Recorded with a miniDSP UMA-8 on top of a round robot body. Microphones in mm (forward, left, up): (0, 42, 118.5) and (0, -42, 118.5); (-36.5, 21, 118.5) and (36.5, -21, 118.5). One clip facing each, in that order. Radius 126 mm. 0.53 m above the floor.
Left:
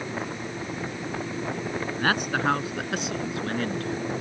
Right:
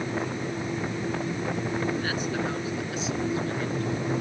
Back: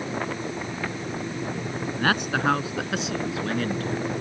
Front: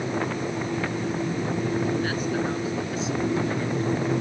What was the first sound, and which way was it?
A man speaking, 120° left.